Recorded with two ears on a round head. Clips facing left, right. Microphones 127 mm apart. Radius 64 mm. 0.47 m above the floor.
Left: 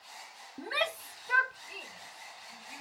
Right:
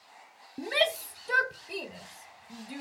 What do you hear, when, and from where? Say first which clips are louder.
0.6 s a shout: right 6 dB; 20° right (ahead or behind); by 2.8 s 65° right (ahead or behind)